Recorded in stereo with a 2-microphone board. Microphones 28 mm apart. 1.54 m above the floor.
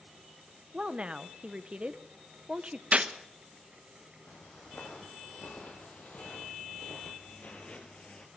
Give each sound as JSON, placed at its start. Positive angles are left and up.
{"t": 0.7, "sound": "a woman speaking", "side_deg": -35, "distance_m": 1.1}
{"t": 2.9, "sound": "a gunshot", "side_deg": -50, "distance_m": 1.0}
{"t": 4.3, "sound": "footsteps", "side_deg": 70, "distance_m": 4.5}